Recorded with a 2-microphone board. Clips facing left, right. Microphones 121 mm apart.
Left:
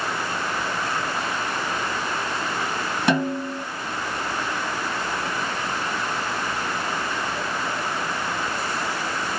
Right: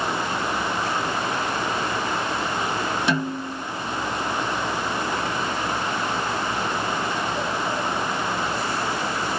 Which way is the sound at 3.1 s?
50° left (ahead or behind).